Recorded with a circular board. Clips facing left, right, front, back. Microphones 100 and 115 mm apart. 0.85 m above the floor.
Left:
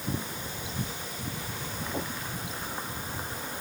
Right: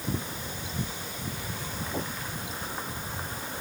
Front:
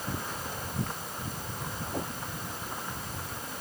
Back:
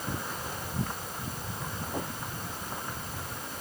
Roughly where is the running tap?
No running tap in this recording.